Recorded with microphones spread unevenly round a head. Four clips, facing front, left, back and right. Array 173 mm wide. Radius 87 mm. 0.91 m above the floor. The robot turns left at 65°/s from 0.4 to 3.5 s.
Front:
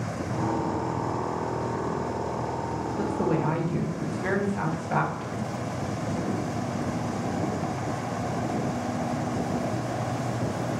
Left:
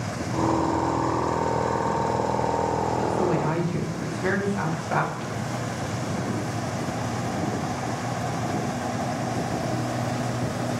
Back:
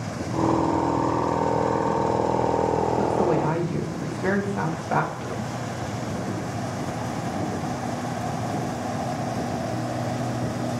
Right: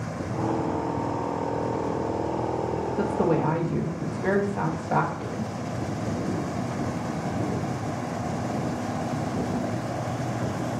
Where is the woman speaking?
125° right, 0.7 m; by 5.5 s 160° right, 0.7 m.